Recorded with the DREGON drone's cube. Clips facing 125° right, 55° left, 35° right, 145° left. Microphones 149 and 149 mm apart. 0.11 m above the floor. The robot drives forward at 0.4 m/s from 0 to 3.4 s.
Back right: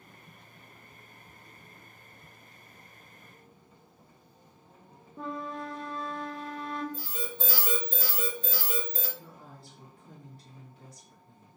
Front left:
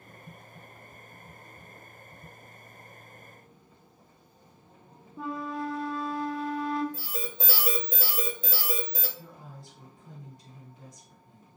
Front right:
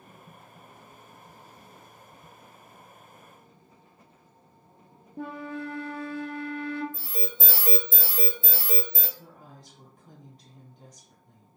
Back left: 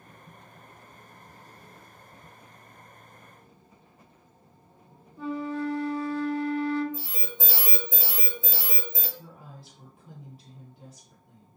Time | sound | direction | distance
5.2 | a flute | 30° right | 0.5 m
6.9 | an alarm | 115° left | 0.9 m
9.2 | a woman speaking | 80° left | 1.6 m